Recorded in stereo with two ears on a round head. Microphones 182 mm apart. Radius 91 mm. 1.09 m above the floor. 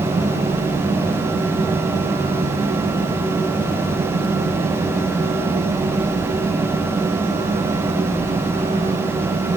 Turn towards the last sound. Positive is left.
No sound to turn to.